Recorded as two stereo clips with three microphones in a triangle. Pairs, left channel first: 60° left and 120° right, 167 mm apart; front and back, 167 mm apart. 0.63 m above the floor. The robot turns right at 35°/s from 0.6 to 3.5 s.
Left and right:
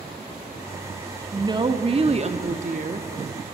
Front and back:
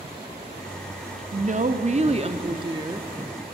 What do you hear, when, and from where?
1.3 s a woman speaking: straight behind, 0.7 m; by 3.1 s 115° right, 0.7 m